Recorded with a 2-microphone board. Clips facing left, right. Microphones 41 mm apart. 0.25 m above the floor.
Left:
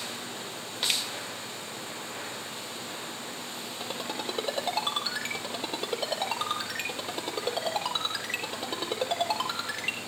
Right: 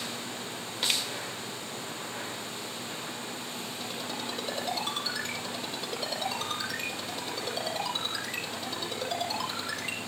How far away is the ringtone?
About 4.5 m.